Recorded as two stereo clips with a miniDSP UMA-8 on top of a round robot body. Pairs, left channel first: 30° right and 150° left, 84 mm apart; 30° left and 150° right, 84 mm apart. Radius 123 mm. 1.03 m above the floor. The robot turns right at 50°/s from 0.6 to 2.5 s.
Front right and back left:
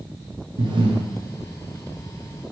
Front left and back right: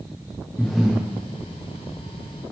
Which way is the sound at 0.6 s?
115° left.